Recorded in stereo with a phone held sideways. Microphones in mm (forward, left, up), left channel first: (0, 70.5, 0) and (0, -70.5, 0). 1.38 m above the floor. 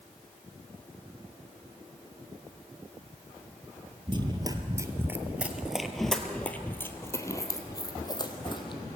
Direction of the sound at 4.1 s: 35° right (ahead or behind).